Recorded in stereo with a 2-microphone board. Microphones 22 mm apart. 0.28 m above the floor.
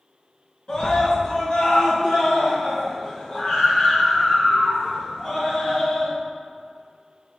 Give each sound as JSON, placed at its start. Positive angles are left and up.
{"t": 0.7, "sound": "a scream", "side_deg": 40, "distance_m": 3.0}